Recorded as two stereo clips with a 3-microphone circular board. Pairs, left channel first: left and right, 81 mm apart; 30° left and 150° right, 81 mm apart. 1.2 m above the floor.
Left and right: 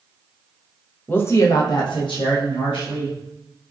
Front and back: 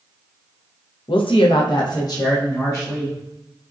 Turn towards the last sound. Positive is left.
turn(degrees=90)